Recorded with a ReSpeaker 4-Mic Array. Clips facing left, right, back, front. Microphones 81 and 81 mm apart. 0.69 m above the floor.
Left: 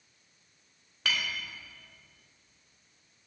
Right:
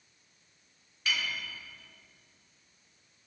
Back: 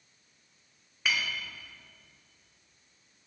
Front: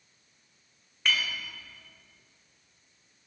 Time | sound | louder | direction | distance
1.1 | a clink | left 1 dB, front 1 dB | 95° left | 1.4 m